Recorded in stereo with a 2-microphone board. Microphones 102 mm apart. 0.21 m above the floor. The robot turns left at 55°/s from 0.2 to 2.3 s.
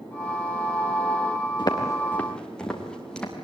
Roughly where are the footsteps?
Left.